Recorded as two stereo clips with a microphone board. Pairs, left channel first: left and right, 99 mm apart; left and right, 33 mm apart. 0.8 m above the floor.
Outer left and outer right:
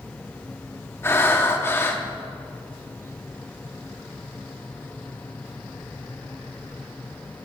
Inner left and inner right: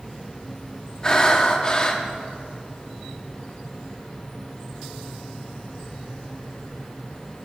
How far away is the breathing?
About 1.0 m.